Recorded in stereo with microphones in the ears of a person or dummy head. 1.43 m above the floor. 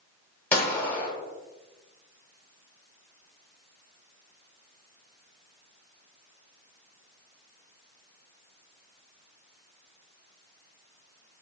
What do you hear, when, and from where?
0.5 s a gunshot: 10° left (ahead or behind), 1.1 m